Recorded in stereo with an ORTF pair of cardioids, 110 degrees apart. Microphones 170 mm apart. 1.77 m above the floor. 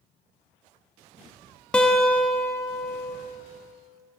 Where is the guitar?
5° left, 0.8 m.